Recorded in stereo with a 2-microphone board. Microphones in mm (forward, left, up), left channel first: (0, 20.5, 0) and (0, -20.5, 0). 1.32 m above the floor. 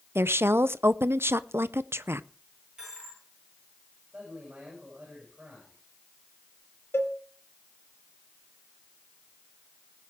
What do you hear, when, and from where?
0.1 s a woman speaking: 75° right (ahead or behind), 0.7 m
2.8 s a dropped coin: 15° right (ahead or behind), 9 m
4.1 s a man speaking: 30° right (ahead or behind), 7.5 m
6.9 s a cowbell: 70° left (ahead or behind), 2 m